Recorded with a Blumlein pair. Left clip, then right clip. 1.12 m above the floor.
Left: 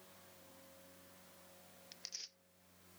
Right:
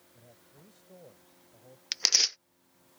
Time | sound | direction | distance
0.1 | a man speaking | 45° right | ?
1.9 | tearing paper | 50° right | ?